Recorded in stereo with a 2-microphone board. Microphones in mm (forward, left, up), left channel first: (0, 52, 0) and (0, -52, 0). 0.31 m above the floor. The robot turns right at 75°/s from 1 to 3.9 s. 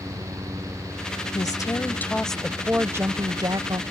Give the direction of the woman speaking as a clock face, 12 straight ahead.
9 o'clock.